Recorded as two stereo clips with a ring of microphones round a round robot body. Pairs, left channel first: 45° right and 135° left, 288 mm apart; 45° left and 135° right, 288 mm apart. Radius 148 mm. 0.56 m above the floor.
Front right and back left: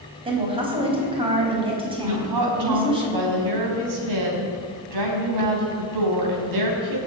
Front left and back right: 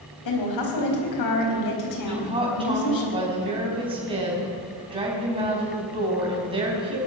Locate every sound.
0.2 s a woman speaking: 65° left, 4.5 m
2.1 s a woman speaking: 155° left, 4.5 m